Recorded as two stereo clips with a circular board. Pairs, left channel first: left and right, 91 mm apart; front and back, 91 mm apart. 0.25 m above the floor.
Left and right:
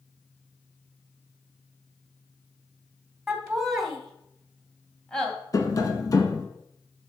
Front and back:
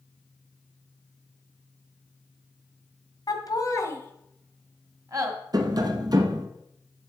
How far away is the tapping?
About 1.0 m.